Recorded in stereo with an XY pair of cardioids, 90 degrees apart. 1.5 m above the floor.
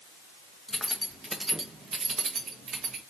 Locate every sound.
0.7 s keys jangling: 15° left, 1.5 m; by 3.0 s 75° right, 1.8 m